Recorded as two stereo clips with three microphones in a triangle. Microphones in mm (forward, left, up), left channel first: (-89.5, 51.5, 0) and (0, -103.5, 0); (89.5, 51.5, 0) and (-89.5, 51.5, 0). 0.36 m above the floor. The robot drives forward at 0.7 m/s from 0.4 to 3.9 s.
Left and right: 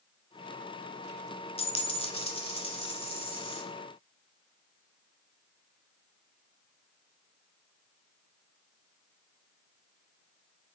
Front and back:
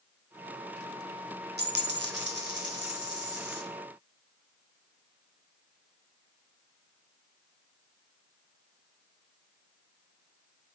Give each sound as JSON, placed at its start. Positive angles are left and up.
{"t": 1.6, "sound": "a dropped coin", "azimuth_deg": 175, "distance_m": 0.7}